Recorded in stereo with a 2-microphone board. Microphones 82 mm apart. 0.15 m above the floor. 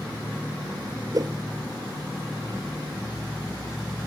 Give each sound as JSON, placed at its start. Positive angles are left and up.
{"t": 1.1, "sound": "a whoosh", "side_deg": -50, "distance_m": 0.8}